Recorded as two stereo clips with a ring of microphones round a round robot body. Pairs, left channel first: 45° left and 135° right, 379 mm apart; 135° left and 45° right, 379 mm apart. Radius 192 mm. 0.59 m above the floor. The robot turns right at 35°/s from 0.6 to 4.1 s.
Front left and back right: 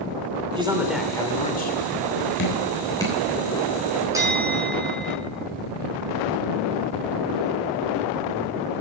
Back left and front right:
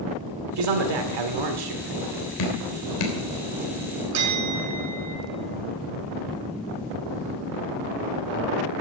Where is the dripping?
105° left, 3 m; by 3.2 s 130° left, 3 m.